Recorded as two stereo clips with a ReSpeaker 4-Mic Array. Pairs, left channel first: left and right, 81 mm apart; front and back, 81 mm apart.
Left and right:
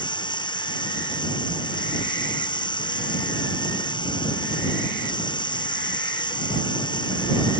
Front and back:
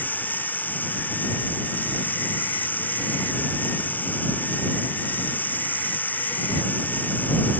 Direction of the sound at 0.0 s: 70° left.